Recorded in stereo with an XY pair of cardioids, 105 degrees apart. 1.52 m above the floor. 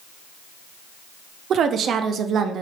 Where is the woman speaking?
60° right, 0.5 m.